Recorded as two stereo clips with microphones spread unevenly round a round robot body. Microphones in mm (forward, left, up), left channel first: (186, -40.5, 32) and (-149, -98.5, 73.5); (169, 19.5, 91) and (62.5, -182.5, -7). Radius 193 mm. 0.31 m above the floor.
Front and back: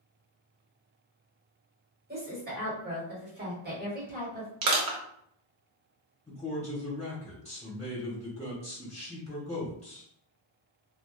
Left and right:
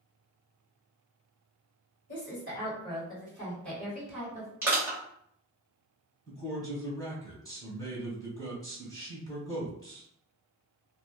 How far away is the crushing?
About 0.9 m.